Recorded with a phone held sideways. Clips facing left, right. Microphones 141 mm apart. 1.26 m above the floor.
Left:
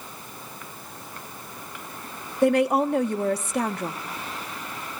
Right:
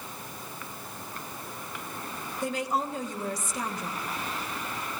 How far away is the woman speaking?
About 1.3 m.